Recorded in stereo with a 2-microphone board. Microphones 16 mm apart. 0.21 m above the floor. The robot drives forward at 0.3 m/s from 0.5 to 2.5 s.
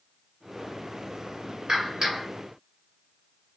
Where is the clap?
55° right (ahead or behind), 2.0 m.